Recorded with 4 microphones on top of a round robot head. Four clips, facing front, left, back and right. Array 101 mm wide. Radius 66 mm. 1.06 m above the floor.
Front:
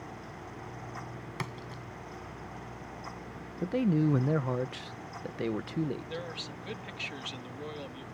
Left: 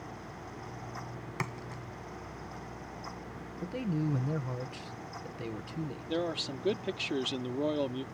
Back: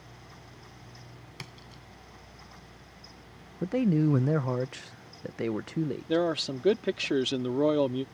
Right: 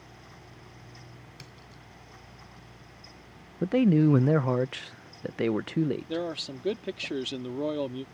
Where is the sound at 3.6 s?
100° right.